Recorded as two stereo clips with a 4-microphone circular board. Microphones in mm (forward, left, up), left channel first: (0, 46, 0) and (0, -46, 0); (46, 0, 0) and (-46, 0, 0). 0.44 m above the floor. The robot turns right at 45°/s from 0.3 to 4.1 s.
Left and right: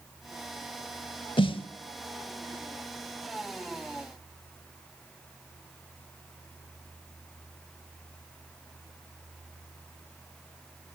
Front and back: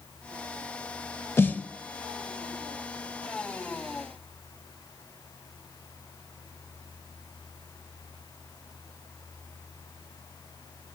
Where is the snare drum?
65° left, 0.6 m; by 1.7 s 80° left, 0.6 m.